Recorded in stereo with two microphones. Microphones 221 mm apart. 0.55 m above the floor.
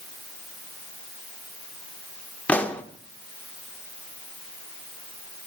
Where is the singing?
No singing in this recording.